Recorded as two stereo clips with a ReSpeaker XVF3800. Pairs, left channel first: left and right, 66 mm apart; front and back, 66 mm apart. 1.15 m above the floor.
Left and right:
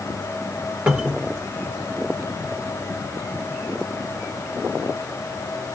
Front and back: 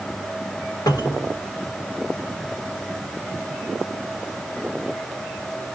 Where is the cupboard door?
15° right, 1.6 m.